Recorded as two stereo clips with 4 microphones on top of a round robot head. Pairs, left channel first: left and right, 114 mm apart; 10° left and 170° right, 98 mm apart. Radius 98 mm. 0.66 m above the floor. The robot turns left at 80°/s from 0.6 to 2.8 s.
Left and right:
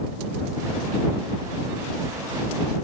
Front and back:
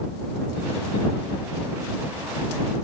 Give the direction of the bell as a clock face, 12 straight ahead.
I don't hear a bell.